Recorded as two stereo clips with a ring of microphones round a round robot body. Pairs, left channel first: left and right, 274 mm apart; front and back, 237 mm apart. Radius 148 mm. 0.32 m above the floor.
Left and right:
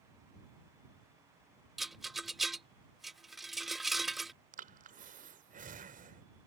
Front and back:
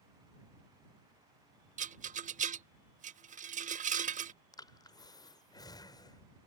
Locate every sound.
1.8 s a rattle: straight behind
4.5 s breathing: 60° right